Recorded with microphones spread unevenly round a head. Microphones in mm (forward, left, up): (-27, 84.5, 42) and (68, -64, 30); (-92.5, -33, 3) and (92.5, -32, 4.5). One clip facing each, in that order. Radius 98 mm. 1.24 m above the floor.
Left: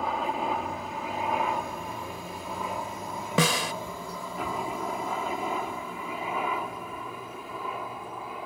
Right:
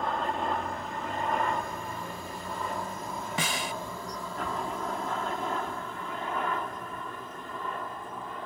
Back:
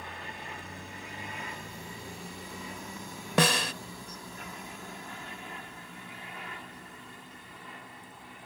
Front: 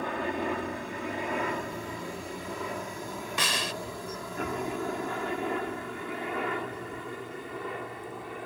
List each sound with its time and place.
0.0 s a helicopter: 40° left
3.4 s a snare drum: 140° left